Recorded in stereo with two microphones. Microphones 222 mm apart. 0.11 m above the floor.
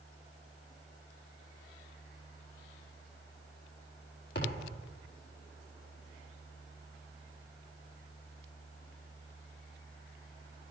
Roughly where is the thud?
Left.